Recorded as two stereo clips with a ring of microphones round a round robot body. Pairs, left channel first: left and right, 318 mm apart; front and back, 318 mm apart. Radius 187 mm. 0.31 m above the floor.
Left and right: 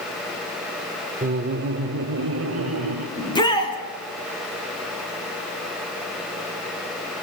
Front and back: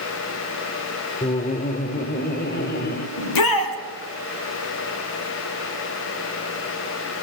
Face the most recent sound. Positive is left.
turn(degrees=15)